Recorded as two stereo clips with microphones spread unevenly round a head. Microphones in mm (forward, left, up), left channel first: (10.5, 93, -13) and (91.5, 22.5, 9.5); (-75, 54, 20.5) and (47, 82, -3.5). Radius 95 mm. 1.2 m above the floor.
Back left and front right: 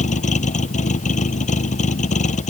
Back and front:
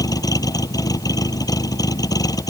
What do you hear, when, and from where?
0.0 s a vehicle: 130° left